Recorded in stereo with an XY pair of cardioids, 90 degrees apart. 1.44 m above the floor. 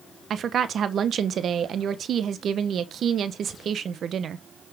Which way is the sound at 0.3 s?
65° right.